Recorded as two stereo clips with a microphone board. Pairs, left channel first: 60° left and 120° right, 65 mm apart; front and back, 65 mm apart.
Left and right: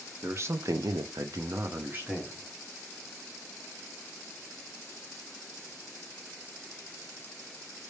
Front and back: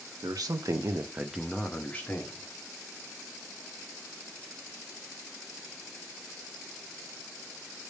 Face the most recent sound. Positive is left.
turn(degrees=-55)